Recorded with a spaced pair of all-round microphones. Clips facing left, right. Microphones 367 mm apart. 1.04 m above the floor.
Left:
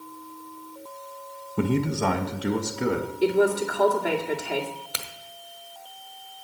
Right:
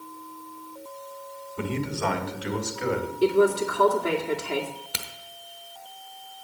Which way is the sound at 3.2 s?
10° right (ahead or behind).